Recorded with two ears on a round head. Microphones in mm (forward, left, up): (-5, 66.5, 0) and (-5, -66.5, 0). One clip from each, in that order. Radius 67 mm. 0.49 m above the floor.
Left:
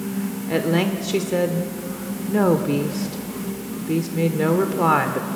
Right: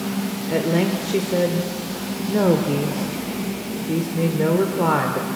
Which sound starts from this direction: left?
A woman speaking, at 0.5 s.